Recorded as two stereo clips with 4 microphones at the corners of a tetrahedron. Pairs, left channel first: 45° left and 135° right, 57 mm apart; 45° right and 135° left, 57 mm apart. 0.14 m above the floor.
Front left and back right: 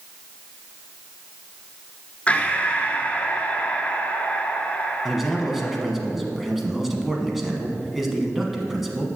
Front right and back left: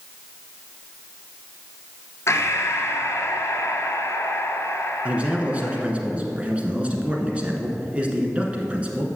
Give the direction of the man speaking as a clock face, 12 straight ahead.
7 o'clock.